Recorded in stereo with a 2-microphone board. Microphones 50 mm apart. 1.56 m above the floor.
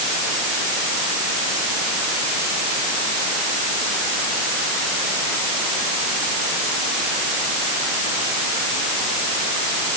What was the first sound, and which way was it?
Only background noise.